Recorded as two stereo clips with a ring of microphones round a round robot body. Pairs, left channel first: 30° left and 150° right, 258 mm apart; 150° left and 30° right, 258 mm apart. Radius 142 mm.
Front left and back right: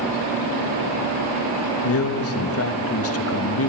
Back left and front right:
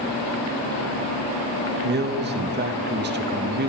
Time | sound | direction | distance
1.8 | a man speaking | 15° left | 1.6 m